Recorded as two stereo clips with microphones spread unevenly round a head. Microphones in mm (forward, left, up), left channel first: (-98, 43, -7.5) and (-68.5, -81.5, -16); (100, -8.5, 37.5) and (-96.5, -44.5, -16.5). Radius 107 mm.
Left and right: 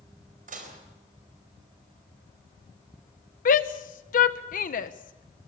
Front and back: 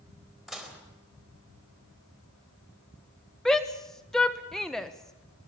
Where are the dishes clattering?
80° right, 4 m.